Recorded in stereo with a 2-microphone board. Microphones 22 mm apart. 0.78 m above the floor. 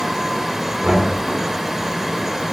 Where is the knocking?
75° right (ahead or behind), 1.4 m.